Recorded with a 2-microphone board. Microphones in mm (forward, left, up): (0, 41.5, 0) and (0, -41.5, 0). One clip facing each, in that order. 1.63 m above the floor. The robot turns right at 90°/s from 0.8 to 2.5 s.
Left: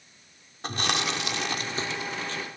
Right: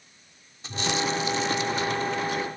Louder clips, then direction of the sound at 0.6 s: Right 2 dB; 55° left.